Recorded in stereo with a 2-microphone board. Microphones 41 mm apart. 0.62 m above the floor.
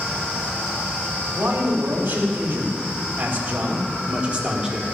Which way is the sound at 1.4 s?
70° right (ahead or behind).